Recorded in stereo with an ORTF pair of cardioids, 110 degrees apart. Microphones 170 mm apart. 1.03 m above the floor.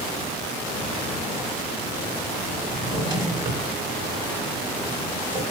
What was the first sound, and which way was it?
A drawer, 25° right.